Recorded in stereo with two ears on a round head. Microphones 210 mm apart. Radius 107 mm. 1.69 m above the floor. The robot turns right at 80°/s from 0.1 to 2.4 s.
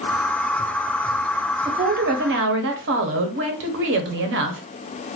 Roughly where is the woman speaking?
Behind right.